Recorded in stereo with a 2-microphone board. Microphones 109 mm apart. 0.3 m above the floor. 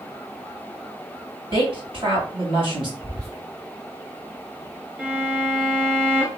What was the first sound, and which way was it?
A woman speaking, 50° right (ahead or behind).